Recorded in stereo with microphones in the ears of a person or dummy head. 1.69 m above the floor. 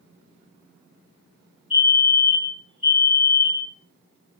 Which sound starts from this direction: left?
A fire alarm, at 1.7 s.